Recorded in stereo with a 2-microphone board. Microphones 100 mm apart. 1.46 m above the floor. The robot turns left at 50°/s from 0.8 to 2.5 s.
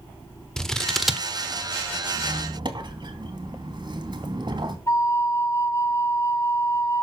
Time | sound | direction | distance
0.6 | scissors | 5° left (ahead or behind) | 1.2 m
2.1 | a squeak | 65° right (ahead or behind) | 2 m
4.9 | a flute | 30° left (ahead or behind) | 0.8 m